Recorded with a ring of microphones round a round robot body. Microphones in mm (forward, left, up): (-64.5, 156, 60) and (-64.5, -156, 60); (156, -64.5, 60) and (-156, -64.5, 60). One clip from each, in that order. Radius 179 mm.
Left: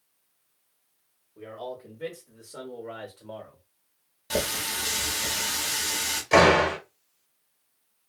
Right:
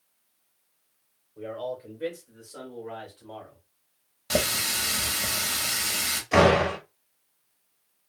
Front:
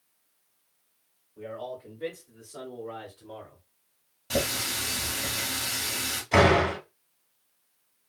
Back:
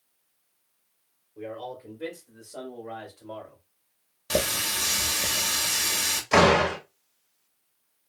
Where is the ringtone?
No ringtone in this recording.